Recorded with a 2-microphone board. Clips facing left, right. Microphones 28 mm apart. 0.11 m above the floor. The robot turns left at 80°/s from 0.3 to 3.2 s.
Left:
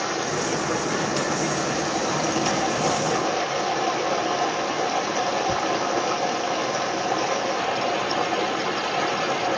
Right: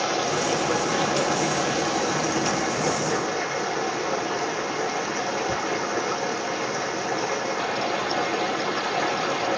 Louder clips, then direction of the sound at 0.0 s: Right 1 dB; 40° right.